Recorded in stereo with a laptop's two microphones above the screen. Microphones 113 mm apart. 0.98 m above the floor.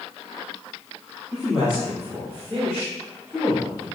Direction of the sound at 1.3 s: 5° right (ahead or behind).